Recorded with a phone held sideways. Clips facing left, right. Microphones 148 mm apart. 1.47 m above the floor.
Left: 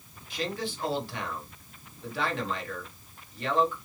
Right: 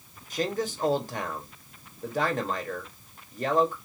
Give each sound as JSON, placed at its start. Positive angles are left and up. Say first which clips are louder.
{"t": 0.3, "sound": "a man speaking", "louder": "right 4 dB", "side_deg": -45, "distance_m": 1.2}